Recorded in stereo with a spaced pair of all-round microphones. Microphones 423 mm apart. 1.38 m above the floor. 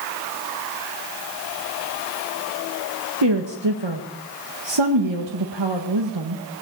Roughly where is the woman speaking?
Right.